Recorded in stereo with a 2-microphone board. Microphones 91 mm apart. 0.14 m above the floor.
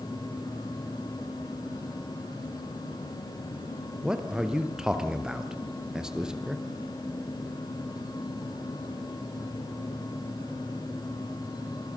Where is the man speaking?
10° right (ahead or behind), 2.5 m.